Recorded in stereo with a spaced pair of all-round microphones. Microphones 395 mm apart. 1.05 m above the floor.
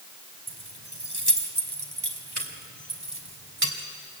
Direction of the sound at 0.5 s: 70° right (ahead or behind).